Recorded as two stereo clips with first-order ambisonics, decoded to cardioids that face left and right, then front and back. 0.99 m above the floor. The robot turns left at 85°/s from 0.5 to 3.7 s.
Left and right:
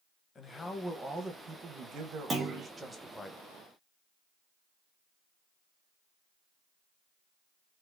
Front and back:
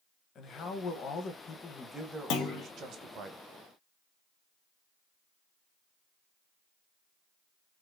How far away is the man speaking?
About 0.9 m.